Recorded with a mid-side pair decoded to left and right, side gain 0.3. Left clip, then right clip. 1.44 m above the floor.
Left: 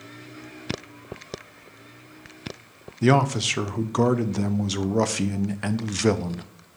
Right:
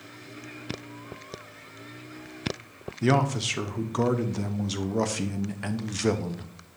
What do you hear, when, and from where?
3.0 s a man speaking: 45° left, 0.8 m